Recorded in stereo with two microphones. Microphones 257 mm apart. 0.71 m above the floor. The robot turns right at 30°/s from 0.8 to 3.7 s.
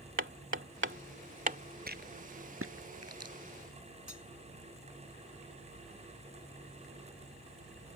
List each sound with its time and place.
0.2 s hammering: 50° right (ahead or behind); by 1.6 s 30° right (ahead or behind)
1.9 s a rattle: 35° right (ahead or behind); by 3.3 s 80° right
4.1 s cutlery clinking: 85° left